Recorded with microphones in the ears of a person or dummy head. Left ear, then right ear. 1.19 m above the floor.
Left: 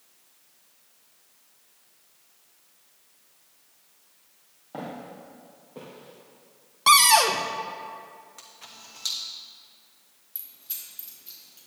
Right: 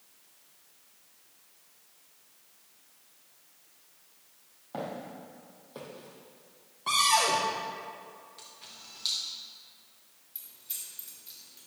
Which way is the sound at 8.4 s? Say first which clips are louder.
Left 2 dB; 30° left (ahead or behind).